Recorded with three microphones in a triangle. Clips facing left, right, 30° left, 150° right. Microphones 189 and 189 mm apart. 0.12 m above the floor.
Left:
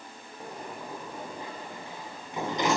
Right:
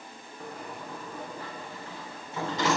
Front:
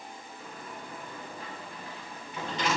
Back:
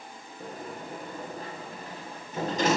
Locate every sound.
0.4 s a sliding door: 160° left, 4 m